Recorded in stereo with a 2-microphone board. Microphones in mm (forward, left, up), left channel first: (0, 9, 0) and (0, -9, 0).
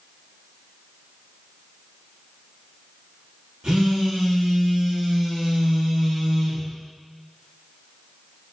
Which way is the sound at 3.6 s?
75° right (ahead or behind).